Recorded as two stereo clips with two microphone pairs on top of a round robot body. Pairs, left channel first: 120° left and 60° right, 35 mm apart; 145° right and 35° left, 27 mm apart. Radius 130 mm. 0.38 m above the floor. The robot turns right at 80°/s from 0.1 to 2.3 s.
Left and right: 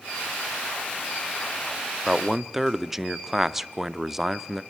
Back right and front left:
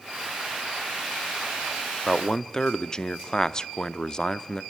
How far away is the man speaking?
About 0.8 m.